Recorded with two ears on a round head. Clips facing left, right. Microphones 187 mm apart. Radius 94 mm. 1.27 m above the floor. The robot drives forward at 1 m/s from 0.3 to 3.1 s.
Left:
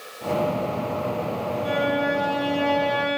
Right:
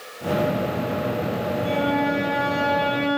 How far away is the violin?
About 6.5 m.